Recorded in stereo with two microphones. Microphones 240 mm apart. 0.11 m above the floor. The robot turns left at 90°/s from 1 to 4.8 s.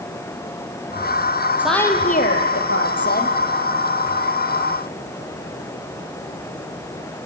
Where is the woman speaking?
170° right, 2.5 m; by 3.4 s 30° left, 2.5 m.